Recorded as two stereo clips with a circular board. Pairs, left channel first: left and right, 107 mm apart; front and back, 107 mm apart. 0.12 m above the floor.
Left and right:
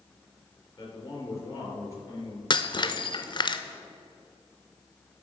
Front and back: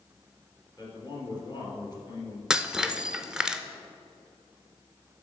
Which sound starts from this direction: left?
Breaking glass, at 2.5 s.